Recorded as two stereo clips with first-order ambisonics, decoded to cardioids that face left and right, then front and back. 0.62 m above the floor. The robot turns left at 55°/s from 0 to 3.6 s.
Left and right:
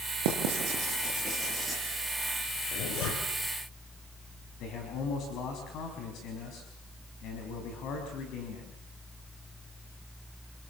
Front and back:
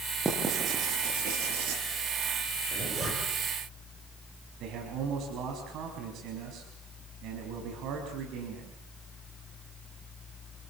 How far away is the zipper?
About 7 m.